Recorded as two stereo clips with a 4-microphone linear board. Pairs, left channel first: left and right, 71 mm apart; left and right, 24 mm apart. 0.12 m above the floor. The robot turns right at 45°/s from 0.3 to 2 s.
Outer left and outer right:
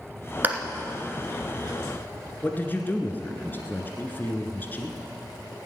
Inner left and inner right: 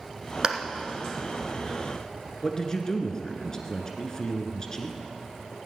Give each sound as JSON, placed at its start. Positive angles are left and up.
{"t": 0.4, "sound": "a clap", "side_deg": -25, "distance_m": 1.2}
{"t": 2.4, "sound": "a man speaking", "side_deg": 25, "distance_m": 1.5}